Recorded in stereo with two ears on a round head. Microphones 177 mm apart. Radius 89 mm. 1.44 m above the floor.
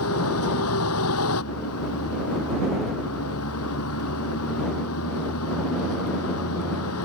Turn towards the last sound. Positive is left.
turn(degrees=80)